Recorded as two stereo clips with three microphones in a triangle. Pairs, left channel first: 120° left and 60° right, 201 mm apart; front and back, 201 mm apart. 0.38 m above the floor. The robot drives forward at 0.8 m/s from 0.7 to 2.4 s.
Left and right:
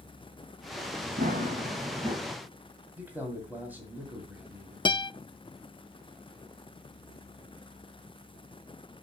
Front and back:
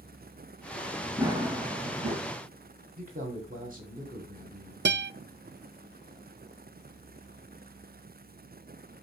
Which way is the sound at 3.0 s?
140° right.